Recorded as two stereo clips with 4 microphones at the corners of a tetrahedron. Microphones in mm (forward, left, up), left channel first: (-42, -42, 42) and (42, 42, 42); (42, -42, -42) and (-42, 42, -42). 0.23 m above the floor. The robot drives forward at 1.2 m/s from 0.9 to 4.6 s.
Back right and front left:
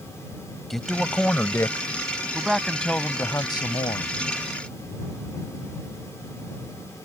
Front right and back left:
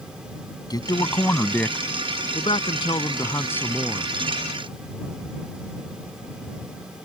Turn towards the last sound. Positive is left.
turn(degrees=-150)